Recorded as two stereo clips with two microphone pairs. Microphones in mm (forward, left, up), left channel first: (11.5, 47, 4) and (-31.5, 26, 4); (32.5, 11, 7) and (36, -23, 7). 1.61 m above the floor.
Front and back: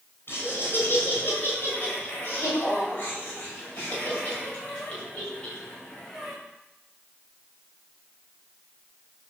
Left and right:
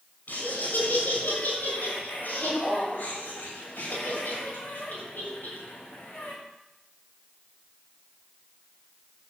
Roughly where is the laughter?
Ahead left.